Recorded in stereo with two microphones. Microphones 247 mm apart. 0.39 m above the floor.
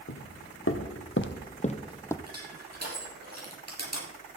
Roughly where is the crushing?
Right.